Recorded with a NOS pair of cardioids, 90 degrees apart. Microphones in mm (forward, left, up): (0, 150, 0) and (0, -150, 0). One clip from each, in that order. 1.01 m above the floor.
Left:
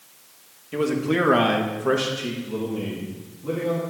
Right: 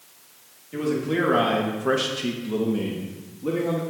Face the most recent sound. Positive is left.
turn(degrees=-80)